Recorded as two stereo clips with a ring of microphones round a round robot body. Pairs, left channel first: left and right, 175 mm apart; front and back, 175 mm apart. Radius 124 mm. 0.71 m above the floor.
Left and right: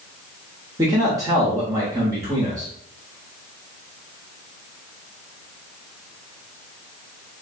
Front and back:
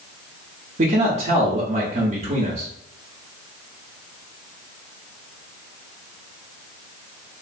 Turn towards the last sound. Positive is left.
turn(degrees=-155)